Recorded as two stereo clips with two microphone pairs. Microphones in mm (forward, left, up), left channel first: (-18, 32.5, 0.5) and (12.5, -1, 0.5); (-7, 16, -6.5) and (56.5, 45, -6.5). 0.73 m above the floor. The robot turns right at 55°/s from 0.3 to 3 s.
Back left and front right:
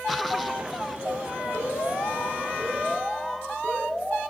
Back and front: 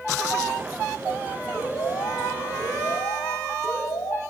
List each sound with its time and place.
1.5 s an alarm: 140° left, 4.5 m; by 4.2 s 140° right, 4.5 m